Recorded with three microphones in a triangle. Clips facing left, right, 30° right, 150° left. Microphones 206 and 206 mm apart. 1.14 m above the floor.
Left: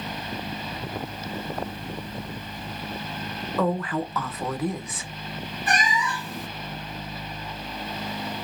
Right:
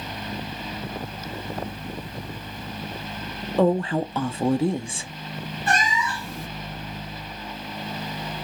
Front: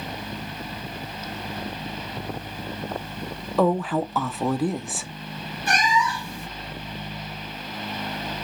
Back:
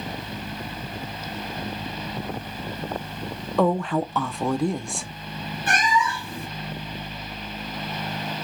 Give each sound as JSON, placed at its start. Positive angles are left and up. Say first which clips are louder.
{"t": 3.6, "sound": "a woman speaking", "louder": "right 5 dB, even", "azimuth_deg": -115, "distance_m": 0.6}
{"t": 5.7, "sound": "a cat meowing", "louder": "right 1 dB, even", "azimuth_deg": 160, "distance_m": 1.8}